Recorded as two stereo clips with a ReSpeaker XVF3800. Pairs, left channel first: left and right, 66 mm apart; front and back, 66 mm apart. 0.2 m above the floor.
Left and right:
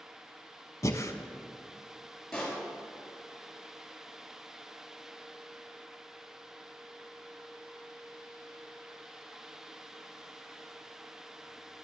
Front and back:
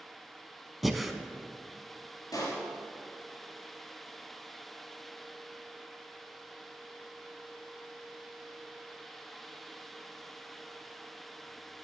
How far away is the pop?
About 3.5 m.